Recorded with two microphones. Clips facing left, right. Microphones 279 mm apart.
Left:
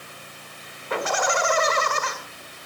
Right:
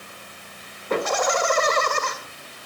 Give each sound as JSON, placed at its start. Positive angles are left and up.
{"t": 0.9, "sound": "laughter", "side_deg": -45, "distance_m": 1.8}